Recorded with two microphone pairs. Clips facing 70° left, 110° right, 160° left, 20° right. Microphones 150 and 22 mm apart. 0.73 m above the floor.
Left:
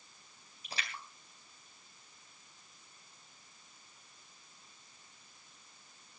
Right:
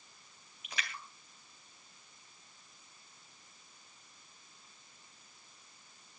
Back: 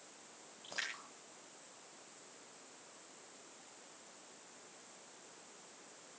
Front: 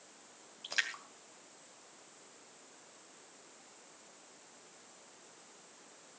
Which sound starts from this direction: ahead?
A splash, at 0.6 s.